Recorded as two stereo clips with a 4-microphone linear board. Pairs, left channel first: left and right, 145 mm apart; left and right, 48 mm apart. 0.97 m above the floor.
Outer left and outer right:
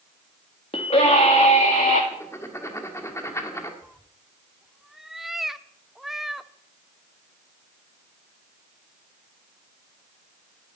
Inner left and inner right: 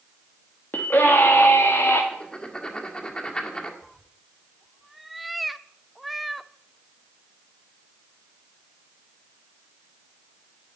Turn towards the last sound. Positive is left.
turn(degrees=-5)  # may be behind; listen again after turning